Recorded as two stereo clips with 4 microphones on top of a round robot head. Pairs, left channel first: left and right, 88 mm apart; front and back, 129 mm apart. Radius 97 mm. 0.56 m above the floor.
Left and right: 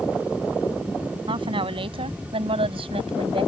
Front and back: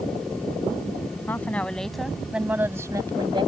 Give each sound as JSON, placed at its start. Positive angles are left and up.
{"t": 1.3, "sound": "a woman speaking", "azimuth_deg": -75}